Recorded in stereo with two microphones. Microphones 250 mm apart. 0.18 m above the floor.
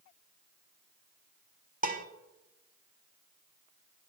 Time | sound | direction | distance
1.8 | dishes clattering | 35° right (ahead or behind) | 0.8 m